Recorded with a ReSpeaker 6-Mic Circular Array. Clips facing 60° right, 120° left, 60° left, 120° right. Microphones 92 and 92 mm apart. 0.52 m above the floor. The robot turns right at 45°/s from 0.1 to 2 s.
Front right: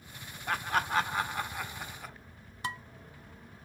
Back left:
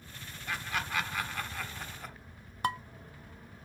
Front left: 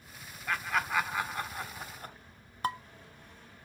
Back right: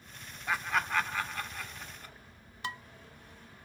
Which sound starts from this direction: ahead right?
Laughter, at 0.5 s.